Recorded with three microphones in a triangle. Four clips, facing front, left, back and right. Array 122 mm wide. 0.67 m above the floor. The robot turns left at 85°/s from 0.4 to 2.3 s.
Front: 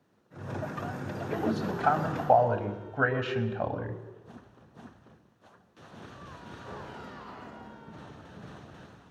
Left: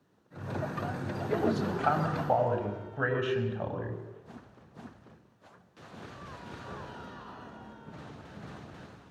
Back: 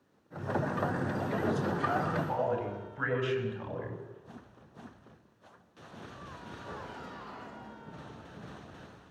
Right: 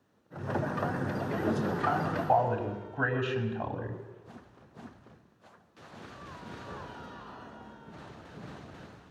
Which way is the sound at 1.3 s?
85° left.